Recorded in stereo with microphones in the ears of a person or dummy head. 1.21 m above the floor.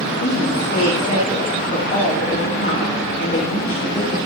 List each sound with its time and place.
0.2 s a woman speaking: 45° left (ahead or behind), 1.9 m